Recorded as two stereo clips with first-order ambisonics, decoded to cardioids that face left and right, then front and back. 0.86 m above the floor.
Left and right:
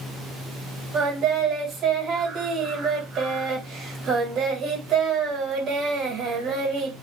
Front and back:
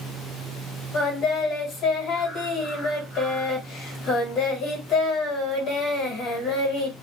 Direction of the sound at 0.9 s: 40° right.